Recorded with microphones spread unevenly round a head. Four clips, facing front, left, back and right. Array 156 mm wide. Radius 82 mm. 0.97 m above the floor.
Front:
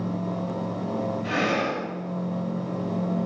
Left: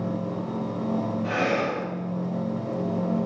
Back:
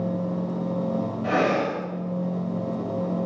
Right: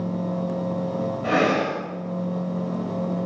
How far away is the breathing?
About 6.5 m.